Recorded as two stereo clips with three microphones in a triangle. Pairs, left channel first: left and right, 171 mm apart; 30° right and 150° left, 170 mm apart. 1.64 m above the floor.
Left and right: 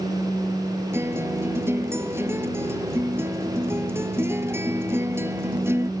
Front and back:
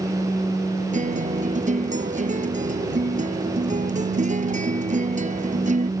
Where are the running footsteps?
No running footsteps in this recording.